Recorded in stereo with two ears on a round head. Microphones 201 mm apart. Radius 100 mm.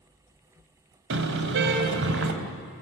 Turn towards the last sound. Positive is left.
turn(degrees=-55)  # may be behind; listen again after turning